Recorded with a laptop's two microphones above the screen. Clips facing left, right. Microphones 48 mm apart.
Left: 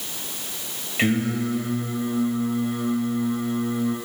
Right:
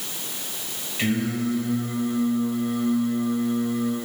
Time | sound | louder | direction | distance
1.0 | singing | left 2 dB | 40° left (ahead or behind) | 2.5 m